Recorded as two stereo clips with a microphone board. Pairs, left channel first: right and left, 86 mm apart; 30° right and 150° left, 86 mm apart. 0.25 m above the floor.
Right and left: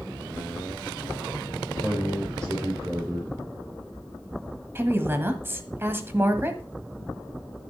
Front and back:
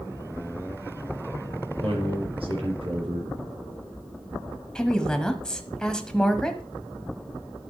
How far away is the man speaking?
About 5.5 m.